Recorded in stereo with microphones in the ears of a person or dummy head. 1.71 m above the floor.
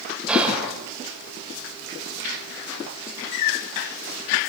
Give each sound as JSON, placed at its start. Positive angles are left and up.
{"t": 0.3, "sound": "whispering", "side_deg": 0, "distance_m": 7.5}